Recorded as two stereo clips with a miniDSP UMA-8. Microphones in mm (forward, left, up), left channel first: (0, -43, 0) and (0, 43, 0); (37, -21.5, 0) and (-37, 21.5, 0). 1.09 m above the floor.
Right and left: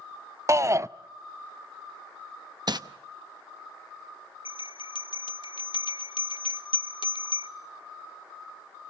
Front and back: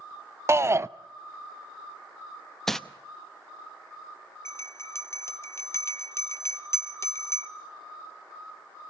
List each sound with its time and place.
0.5 s a shout: 115° left, 0.5 m
2.7 s crumpling: 55° left, 0.8 m
4.5 s a bell: 85° right, 0.9 m